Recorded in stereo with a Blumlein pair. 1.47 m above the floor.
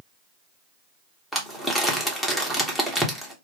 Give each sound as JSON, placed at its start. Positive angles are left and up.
{"t": 1.3, "sound": "crumpling", "azimuth_deg": 5, "distance_m": 1.1}